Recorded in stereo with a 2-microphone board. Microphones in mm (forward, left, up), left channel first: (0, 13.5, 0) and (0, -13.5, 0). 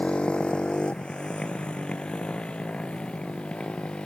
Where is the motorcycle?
40° left (ahead or behind).